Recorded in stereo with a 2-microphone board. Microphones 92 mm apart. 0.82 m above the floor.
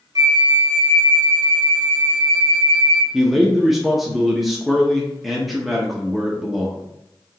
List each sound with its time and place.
0.1 s a flute: 40° right (ahead or behind), 0.6 m
3.1 s a man speaking: centre (ahead or behind), 0.6 m